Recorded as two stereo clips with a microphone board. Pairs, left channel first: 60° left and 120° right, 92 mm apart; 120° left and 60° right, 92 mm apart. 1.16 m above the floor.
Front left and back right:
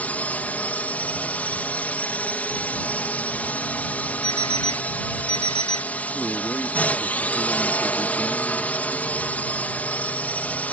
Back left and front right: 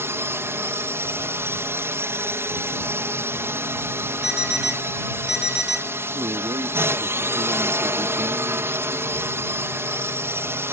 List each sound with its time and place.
0.0 s a drone: 10° right
4.2 s an alarm clock: 25° left
6.2 s a man speaking: 30° right